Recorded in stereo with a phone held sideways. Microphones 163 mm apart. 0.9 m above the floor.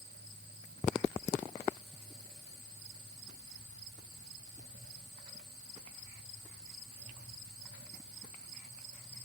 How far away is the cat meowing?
I don't hear a cat meowing.